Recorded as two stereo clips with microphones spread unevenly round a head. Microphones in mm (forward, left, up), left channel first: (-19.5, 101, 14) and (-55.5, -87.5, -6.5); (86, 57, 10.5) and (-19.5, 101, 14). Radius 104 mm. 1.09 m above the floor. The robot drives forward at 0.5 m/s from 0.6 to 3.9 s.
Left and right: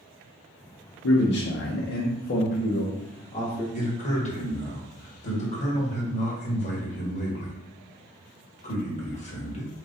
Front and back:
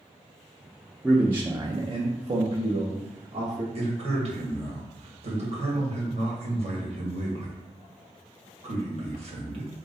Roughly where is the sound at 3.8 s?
Behind left.